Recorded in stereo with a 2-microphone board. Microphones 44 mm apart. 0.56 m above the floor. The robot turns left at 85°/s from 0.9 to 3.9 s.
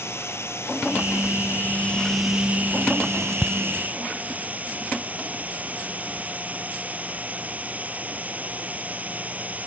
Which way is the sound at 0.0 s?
110° left.